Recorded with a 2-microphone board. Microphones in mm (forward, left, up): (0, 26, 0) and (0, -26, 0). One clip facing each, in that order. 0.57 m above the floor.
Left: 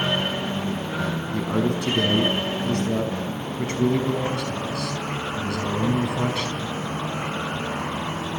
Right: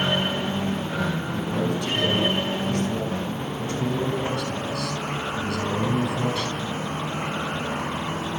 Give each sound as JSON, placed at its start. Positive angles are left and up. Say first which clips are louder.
{"t": 1.3, "sound": "a man speaking", "louder": "left 5 dB", "side_deg": 70, "distance_m": 5.0}